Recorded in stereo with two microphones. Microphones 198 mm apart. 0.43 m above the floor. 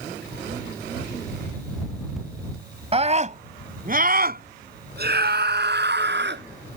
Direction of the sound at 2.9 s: 30° right (ahead or behind).